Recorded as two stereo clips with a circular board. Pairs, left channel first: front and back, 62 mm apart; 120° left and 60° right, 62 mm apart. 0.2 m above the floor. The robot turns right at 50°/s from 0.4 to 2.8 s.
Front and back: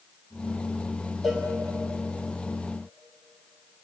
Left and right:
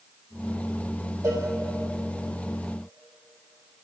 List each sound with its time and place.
1.2 s a cowbell: 95° right, 3.5 m; by 1.5 s 85° right, 3.5 m